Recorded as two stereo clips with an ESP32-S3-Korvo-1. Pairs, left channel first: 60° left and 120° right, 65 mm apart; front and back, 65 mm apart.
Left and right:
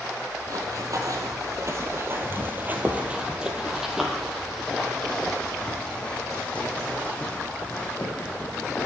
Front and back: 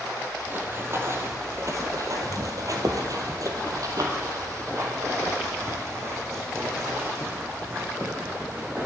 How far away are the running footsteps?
About 1.9 m.